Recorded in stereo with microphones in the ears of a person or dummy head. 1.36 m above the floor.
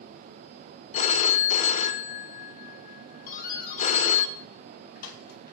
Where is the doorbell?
50° left (ahead or behind), 2.5 m.